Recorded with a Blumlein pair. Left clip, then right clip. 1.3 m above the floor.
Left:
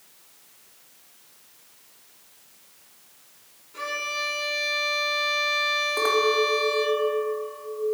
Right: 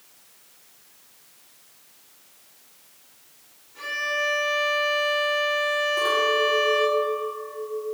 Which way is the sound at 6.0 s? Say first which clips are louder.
Left 1 dB; 65° left.